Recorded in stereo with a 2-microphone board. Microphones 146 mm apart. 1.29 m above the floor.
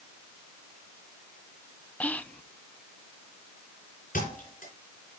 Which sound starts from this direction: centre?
Whispering, at 2.0 s.